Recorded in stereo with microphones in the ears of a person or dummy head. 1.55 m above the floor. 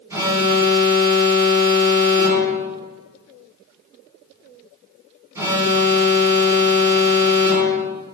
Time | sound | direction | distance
0.1 | an alarm | 15° right (ahead or behind) | 4.5 m